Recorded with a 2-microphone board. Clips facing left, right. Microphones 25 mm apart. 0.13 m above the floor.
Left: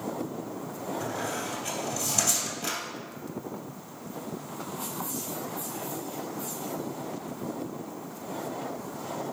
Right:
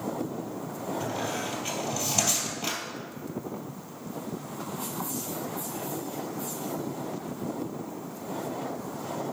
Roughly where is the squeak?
Centre.